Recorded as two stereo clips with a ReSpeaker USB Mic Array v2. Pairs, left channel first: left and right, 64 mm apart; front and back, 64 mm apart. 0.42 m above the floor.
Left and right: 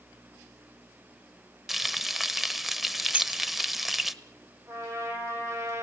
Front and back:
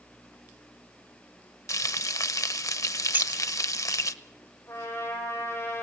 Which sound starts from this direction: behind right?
Keys jangling, at 3.1 s.